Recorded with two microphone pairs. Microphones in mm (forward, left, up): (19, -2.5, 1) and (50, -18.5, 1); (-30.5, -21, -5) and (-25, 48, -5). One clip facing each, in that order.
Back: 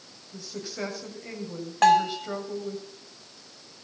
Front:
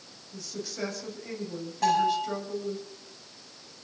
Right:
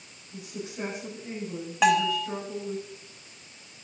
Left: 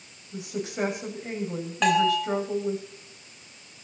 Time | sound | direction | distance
0.3 | a woman speaking | 75° left | 6.5 m
1.8 | a bell | straight behind | 5 m